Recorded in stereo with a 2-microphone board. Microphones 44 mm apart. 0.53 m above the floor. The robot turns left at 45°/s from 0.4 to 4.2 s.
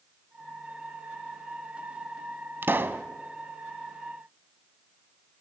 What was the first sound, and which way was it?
A pop, 60° right (ahead or behind).